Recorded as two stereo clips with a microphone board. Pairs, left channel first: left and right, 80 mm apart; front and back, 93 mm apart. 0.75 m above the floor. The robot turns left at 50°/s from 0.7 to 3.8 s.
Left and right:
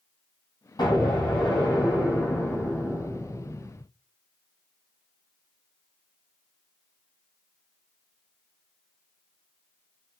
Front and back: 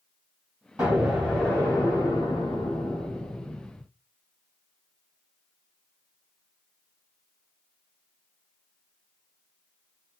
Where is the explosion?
100° left, 3 m; by 3.8 s 50° right, 3 m.